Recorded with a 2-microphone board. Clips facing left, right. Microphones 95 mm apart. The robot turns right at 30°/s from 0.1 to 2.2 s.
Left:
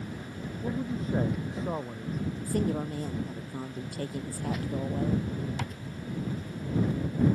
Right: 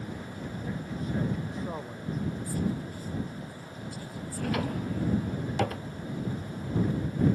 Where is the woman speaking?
65° left (ahead or behind).